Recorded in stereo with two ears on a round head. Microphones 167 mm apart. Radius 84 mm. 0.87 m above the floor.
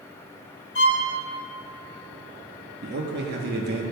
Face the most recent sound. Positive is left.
turn(degrees=-60)  # may be behind; listen again after turning